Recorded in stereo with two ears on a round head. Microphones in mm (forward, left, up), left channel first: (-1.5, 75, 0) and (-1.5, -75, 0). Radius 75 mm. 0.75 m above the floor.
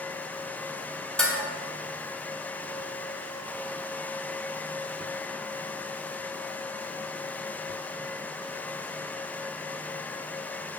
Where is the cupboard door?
I don't hear a cupboard door.